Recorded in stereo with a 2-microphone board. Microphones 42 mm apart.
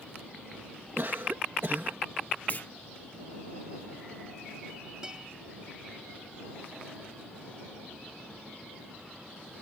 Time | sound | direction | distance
1.0 | a cough | 60° right (ahead or behind) | ?
2.5 | a clunk | 45° left (ahead or behind) | ?
5.0 | a guitar | 20° right (ahead or behind) | ?